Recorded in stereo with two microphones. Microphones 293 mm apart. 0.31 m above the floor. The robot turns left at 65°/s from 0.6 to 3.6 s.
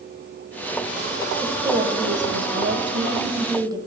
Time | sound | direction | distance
1.4 | a woman speaking | 20° right | 1.4 m